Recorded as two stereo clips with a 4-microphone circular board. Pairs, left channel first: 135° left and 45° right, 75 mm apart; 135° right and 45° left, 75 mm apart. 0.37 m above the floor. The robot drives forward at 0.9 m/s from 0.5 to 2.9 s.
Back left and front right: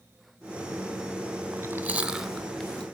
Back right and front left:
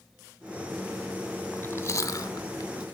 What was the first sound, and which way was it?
Chewing, 75° right.